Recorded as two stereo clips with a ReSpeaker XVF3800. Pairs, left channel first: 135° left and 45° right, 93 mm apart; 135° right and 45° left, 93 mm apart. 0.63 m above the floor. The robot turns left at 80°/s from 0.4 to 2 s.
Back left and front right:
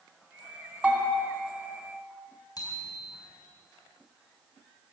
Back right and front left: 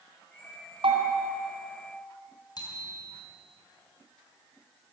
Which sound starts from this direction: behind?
A bicycle bell, at 2.6 s.